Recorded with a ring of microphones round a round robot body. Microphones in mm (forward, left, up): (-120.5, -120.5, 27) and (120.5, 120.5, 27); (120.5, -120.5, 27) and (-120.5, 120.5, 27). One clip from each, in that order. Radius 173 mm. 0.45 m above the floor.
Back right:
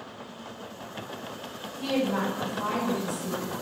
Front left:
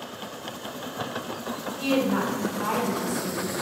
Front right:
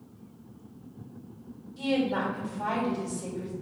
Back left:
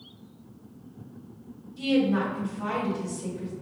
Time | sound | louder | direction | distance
1.8 | a woman speaking | front left 2 dB, back left 3 dB | 20° left | 1.8 m